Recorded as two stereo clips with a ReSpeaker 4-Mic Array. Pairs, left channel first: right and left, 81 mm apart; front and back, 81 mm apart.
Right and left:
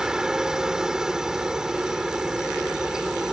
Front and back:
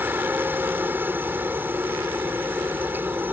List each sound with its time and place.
0.0 s a helicopter: 160° left